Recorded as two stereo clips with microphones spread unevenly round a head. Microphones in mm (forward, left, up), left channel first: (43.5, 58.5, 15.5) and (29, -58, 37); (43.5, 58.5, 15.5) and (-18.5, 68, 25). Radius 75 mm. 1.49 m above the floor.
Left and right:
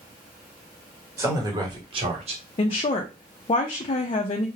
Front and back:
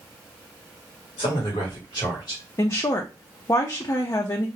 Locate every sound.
1.2 s a man speaking: 30° right, 1.2 m; by 2.4 s 65° right, 1.2 m
2.6 s a woman speaking: 35° left, 0.5 m